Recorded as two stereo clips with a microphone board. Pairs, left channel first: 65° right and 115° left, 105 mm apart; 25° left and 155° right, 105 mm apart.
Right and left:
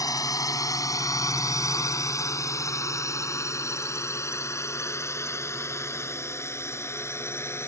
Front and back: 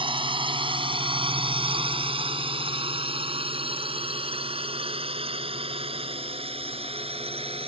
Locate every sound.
0.0 s a drone: 125° right; by 7.7 s 135° right